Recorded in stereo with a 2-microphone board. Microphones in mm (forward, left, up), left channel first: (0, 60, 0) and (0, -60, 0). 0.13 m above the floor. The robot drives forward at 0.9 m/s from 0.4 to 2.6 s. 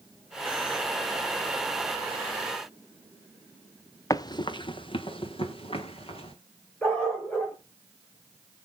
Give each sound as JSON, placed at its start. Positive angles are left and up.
{"t": 4.1, "sound": "running footsteps", "side_deg": 30, "distance_m": 0.7}
{"t": 6.8, "sound": "a dog barking", "side_deg": 10, "distance_m": 3.5}